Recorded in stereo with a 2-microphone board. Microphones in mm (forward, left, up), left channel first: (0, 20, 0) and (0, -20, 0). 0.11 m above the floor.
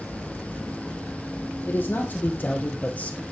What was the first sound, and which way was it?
A man speaking, 60° left (ahead or behind).